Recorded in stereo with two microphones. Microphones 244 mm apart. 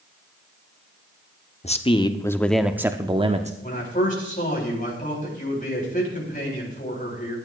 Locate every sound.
1.6 s a man speaking: 30° left (ahead or behind), 0.9 m; by 3.5 s 30° right (ahead or behind), 0.8 m
3.6 s a man speaking: 35° left (ahead or behind), 4.5 m